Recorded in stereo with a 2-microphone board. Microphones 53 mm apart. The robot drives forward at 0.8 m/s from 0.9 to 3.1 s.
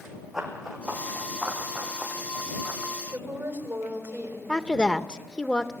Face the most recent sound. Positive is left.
turn(degrees=20)  # may be behind; listen again after turning